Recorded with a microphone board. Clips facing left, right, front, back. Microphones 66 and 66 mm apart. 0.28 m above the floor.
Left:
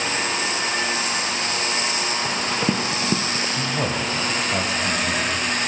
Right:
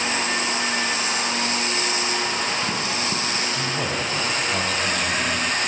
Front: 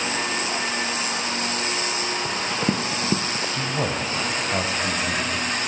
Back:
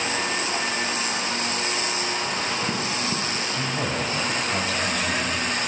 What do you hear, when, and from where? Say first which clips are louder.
2.2 s running footsteps: left 2 dB, front 2 dB; 40° left, 1.2 m; by 3.5 s 25° left, 0.6 m
3.6 s a man speaking: left 1 dB, front 1 dB; 30° left, 1.1 m